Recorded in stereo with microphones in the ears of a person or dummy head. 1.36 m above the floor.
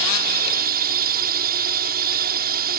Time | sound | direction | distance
0.0 | a drone | 50° right (ahead or behind) | ?